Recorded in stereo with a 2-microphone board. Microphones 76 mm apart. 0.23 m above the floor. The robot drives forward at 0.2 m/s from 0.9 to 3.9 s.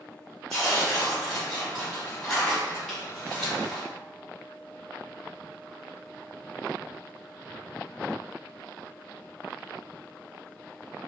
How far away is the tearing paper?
About 1.9 m.